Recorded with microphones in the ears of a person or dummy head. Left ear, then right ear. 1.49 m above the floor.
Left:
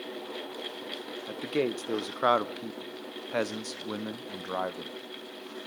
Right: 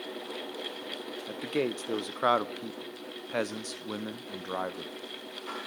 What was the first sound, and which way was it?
A man speaking, centre (ahead or behind).